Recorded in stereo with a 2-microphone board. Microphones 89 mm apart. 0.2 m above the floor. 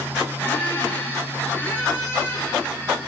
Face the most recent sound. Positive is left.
turn(degrees=25)  # may be behind; listen again after turning